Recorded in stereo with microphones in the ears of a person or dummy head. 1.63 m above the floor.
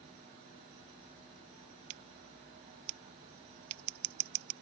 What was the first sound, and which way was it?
Scissors, 25° right (ahead or behind).